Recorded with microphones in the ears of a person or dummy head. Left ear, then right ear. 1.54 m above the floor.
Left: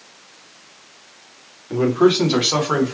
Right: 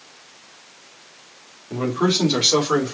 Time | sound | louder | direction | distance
1.7 | a man speaking | left 5 dB | 15° left (ahead or behind) | 3 m